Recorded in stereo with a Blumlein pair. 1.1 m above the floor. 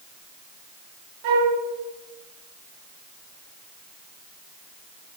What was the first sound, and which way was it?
A flute, 50° right.